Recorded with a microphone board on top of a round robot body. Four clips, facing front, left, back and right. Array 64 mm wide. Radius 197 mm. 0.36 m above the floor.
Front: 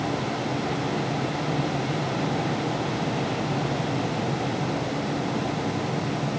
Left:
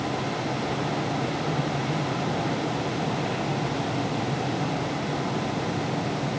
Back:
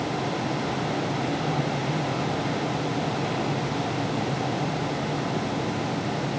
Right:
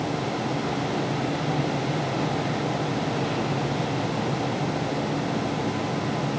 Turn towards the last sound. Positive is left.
No sound to turn to.